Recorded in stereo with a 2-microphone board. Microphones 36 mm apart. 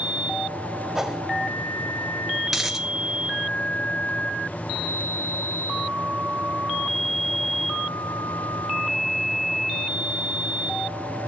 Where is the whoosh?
10° right (ahead or behind), 1.6 m.